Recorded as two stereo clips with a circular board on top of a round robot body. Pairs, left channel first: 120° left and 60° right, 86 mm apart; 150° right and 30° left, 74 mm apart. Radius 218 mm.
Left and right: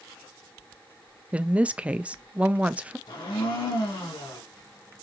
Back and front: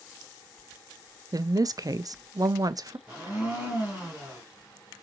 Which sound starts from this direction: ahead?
A woman speaking, at 1.3 s.